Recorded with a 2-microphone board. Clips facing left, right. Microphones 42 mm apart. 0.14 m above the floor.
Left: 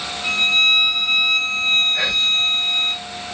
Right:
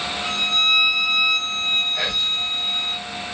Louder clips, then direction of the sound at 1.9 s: Left 4 dB; 20° left (ahead or behind).